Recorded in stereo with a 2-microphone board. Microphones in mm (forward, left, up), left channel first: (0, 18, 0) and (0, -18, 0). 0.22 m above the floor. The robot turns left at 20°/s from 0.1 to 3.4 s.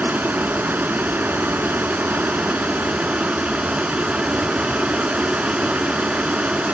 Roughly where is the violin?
I don't hear a violin.